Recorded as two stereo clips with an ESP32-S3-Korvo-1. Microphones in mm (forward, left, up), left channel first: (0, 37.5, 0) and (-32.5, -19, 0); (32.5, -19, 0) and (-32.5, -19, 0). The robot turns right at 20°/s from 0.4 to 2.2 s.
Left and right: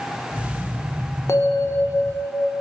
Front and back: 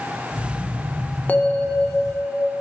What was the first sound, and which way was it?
A bell, 55° left.